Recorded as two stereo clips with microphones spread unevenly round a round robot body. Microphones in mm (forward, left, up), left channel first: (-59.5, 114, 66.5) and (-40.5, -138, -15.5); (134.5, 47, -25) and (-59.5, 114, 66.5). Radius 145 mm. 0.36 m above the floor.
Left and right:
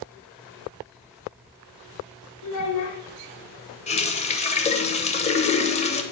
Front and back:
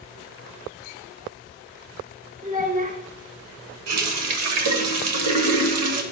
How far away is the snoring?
I don't hear snoring.